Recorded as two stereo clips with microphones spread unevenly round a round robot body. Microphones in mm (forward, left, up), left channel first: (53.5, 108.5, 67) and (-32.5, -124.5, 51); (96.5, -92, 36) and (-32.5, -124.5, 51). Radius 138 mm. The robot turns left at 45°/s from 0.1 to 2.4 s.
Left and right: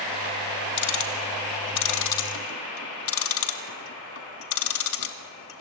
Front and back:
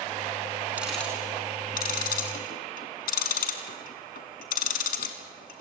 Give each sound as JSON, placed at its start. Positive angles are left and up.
{"t": 0.8, "sound": "ticking", "azimuth_deg": 115, "distance_m": 1.6}